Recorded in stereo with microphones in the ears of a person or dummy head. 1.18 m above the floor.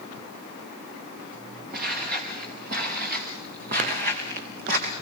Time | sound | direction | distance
1.7 | footsteps | 50° right (ahead or behind) | 7 m